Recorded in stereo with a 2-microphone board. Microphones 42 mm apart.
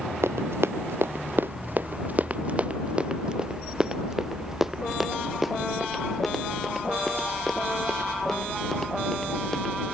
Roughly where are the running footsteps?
Right.